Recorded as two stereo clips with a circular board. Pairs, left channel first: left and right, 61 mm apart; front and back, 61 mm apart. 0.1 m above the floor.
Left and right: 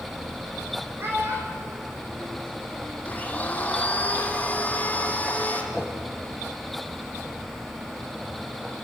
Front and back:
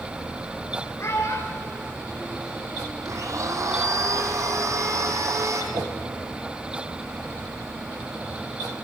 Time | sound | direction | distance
1.0 | a child speaking | 40° right | 4.5 m
3.0 | a blender | 155° left | 2.5 m
5.7 | a whoosh | 175° right | 3 m